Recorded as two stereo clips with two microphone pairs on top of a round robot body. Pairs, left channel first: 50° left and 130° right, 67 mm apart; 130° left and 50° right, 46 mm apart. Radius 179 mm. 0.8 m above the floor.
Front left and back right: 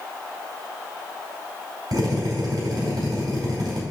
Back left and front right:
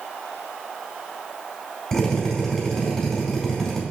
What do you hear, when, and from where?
1.9 s a drill: 150° right, 4 m